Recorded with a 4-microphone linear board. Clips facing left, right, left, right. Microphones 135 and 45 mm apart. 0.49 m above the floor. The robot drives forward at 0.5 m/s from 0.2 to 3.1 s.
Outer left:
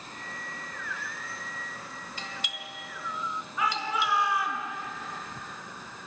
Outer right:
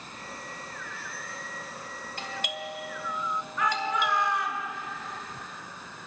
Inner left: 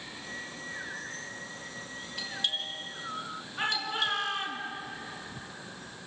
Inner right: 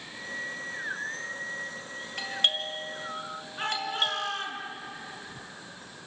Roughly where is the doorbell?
Right.